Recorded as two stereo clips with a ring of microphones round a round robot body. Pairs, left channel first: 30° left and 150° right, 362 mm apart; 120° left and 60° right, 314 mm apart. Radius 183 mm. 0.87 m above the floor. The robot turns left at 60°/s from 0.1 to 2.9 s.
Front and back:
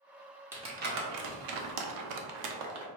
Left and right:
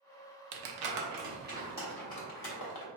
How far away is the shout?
No shout in this recording.